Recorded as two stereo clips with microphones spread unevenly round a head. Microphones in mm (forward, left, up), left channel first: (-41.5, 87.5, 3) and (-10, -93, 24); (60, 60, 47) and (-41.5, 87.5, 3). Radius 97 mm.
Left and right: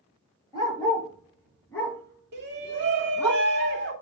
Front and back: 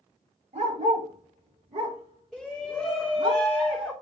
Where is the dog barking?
170° left, 7 m; by 3.3 s 165° right, 3.5 m.